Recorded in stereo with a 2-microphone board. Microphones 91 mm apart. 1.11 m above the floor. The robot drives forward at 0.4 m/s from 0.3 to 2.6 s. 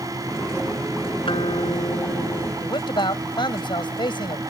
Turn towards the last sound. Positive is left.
turn(degrees=60)  # may be behind; listen again after turning